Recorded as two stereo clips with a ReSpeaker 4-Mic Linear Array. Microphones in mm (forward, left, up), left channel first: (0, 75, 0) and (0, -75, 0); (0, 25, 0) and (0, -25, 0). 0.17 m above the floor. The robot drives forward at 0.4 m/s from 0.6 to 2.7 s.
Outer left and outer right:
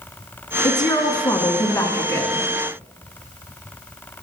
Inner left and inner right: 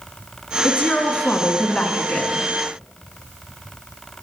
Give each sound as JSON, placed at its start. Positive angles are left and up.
{"t": 0.6, "sound": "a woman speaking", "side_deg": 30, "distance_m": 1.2}